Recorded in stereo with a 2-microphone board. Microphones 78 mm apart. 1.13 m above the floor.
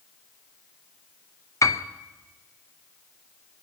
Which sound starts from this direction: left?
A piano, at 1.6 s.